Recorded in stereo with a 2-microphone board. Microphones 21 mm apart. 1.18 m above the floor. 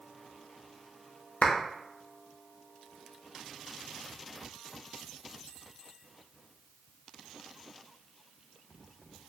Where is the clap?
85° left, 0.7 m.